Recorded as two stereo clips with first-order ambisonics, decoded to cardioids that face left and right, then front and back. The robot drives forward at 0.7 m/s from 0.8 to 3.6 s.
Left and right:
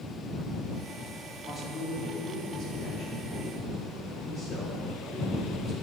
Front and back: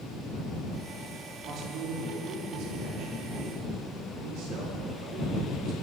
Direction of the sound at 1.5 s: 150° left.